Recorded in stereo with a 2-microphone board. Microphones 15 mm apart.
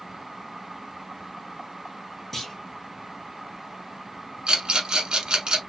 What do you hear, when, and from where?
2.3 s a clunk: 20° left (ahead or behind), 1.2 m
4.5 s a rattle: 65° right (ahead or behind), 0.8 m